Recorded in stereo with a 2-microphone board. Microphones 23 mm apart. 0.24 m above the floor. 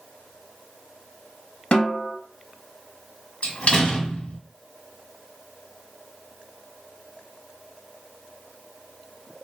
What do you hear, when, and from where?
1.7 s a snare drum: 45° left (ahead or behind), 0.9 m
3.4 s a door slam: 50° left (ahead or behind), 1.2 m